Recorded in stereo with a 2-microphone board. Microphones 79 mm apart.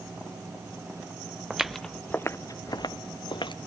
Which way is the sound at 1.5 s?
10° right (ahead or behind).